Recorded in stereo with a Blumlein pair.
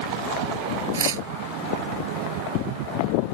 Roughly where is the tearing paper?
Ahead right.